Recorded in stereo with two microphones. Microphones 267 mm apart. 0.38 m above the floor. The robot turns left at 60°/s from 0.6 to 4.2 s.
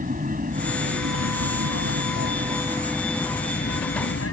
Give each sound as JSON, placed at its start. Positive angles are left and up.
{"t": 0.0, "sound": "an aircraft", "azimuth_deg": -35}